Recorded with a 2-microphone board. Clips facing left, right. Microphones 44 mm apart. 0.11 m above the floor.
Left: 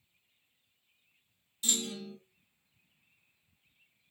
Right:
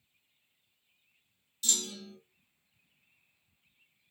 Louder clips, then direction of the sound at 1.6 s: Left 1 dB; 20° left (ahead or behind).